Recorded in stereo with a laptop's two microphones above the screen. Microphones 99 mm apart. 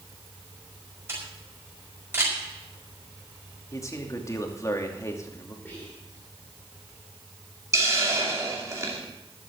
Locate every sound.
1.1 s a camera shutter: 25° right (ahead or behind), 5 m
3.7 s a man speaking: 30° left (ahead or behind), 2.5 m
5.7 s whispering: 20° left (ahead or behind), 3 m
7.7 s a hiss: 30° right (ahead or behind), 2.5 m